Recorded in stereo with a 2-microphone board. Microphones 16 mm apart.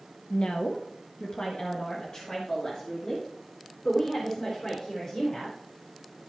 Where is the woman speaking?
75° left (ahead or behind), 1.1 m; by 5.5 s 45° left (ahead or behind), 5 m.